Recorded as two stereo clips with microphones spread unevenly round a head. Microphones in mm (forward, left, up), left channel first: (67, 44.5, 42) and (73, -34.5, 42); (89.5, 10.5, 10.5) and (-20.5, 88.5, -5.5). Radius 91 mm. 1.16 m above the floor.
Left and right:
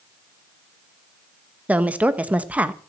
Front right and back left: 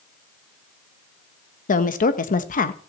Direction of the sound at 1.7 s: 10° right.